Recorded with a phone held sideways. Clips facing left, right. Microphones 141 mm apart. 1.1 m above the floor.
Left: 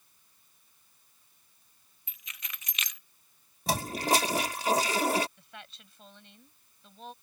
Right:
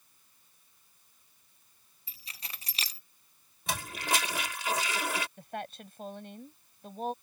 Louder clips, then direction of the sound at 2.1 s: Even; 35° right (ahead or behind).